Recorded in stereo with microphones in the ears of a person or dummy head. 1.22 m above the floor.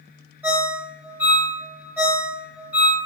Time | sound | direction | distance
0.4 | a ringtone | 10° right (ahead or behind) | 0.7 m